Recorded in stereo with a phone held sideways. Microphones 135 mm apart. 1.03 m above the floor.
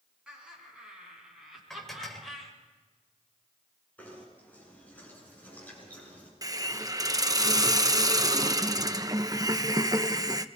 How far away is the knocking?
About 7.5 m.